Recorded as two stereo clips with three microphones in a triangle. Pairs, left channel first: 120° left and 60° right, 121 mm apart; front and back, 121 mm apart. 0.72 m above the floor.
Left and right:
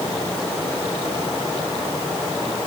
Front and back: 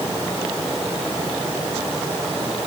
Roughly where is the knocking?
No knocking in this recording.